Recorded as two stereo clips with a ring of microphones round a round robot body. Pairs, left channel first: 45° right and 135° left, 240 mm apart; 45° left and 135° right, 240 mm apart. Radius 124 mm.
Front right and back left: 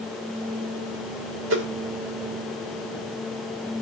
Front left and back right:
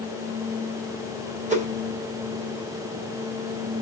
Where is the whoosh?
165° left, 2 m.